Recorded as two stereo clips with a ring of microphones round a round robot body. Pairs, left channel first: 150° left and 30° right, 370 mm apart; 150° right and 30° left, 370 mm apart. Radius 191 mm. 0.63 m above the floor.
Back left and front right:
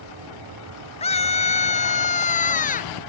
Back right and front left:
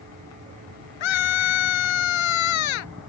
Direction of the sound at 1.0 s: 135° right.